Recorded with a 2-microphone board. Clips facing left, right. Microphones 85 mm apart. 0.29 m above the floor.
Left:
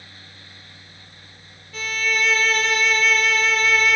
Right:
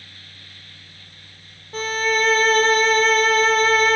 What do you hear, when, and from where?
1.7 s a violin: 40° right (ahead or behind), 0.6 m